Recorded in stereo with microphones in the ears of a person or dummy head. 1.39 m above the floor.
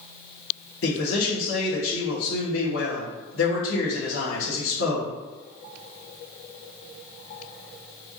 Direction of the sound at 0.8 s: 65° left (ahead or behind).